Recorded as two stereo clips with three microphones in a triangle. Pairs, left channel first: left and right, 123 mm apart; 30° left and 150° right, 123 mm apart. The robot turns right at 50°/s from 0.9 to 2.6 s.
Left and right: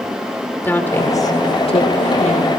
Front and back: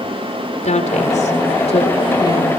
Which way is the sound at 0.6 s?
15° left.